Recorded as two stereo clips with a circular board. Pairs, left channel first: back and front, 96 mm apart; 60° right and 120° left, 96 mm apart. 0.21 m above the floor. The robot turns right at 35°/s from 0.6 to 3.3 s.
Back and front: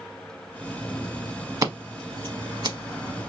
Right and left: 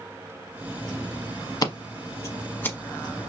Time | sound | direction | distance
1.6 | scissors | 35° right | 0.7 m